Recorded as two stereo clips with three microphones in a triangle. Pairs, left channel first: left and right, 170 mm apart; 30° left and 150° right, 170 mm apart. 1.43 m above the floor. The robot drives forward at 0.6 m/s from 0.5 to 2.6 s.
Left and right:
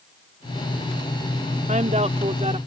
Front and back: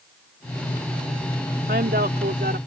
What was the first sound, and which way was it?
A woman speaking, 135° right.